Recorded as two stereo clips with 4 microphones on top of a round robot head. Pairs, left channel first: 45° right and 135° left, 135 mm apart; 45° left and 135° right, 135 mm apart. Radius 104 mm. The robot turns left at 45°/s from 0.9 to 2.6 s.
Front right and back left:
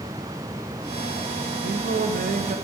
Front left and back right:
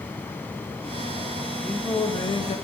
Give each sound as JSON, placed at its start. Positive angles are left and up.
{"t": 1.6, "sound": "singing", "azimuth_deg": 135, "distance_m": 0.8}